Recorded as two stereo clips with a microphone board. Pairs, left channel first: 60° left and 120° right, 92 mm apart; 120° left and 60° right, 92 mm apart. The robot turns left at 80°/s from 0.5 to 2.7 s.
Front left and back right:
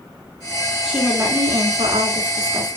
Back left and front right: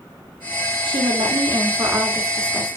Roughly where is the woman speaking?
Ahead right.